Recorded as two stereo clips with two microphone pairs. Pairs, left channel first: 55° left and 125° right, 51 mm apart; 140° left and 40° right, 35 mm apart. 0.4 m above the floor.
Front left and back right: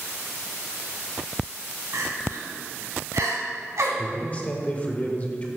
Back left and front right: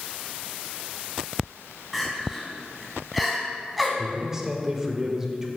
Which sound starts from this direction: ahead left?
A man speaking, at 4.0 s.